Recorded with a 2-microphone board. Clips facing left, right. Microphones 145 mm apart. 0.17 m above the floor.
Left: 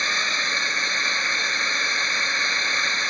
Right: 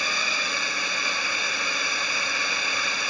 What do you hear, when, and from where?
0.0 s a drone: 10° right (ahead or behind)